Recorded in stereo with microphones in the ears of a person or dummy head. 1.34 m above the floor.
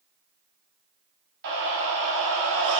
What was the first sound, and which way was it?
A scream, 60° right (ahead or behind).